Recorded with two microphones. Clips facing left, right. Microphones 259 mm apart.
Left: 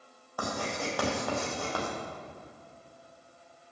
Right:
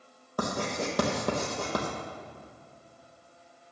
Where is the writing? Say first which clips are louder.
Right 3 dB; 45° right (ahead or behind), 3 m.